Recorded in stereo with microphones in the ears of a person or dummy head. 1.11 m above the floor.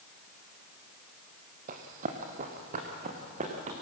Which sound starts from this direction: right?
Running footsteps, at 1.7 s.